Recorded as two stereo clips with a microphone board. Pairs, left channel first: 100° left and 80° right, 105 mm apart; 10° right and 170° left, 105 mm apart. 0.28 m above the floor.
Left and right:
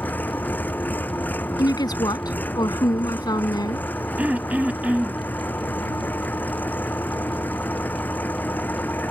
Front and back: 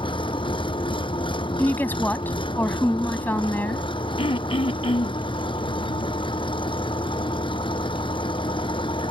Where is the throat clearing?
5° right.